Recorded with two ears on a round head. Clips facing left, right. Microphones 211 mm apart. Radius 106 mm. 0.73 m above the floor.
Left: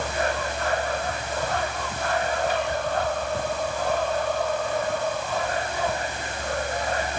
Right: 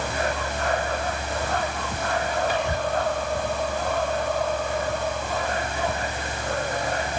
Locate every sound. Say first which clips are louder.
2.5 s whispering: even; 60° right (ahead or behind)